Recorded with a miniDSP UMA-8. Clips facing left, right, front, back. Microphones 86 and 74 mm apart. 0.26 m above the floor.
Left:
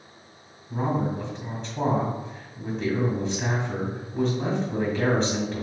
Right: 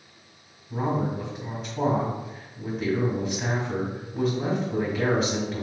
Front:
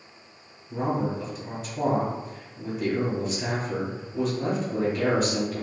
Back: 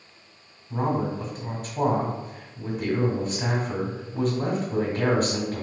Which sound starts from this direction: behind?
A man speaking, at 0.7 s.